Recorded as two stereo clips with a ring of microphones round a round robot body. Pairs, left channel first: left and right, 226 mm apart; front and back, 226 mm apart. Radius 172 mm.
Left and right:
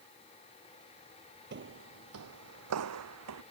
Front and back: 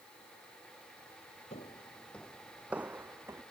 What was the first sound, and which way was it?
Footsteps, 65° right.